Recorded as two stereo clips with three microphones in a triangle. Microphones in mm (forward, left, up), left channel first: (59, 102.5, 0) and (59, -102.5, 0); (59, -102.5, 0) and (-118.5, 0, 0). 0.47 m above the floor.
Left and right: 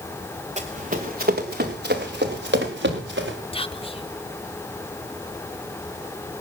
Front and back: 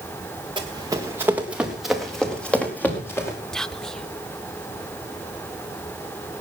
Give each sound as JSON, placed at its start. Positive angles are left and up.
{"t": 0.6, "sound": "running footsteps", "azimuth_deg": -145, "distance_m": 2.5}
{"t": 3.5, "sound": "whispering", "azimuth_deg": 55, "distance_m": 1.1}